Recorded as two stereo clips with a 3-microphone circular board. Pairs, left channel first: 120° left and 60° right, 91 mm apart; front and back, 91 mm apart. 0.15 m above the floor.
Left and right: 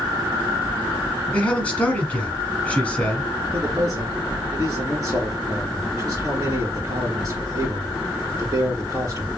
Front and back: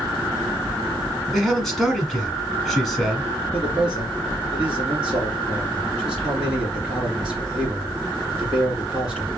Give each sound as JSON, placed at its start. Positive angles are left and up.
{"t": 1.3, "sound": "a man speaking", "azimuth_deg": 85, "distance_m": 1.1}
{"t": 3.5, "sound": "a man speaking", "azimuth_deg": -100, "distance_m": 3.0}